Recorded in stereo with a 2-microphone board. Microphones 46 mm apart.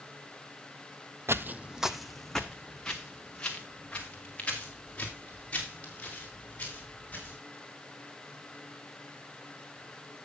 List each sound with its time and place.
1.3 s footsteps: 60° right (ahead or behind), 0.5 m; by 7.4 s 30° left (ahead or behind), 7 m